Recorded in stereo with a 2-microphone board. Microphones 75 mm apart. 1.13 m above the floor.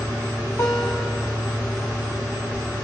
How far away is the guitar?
About 3 m.